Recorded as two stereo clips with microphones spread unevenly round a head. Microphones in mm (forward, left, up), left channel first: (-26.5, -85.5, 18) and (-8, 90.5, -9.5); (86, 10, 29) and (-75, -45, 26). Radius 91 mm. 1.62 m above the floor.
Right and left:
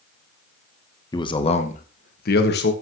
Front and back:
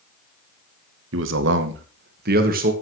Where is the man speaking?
165° right, 2 m; by 2.7 s 120° right, 2.5 m.